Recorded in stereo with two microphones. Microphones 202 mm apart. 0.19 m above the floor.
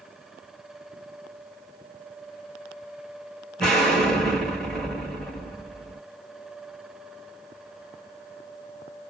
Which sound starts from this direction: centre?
An explosion, at 3.6 s.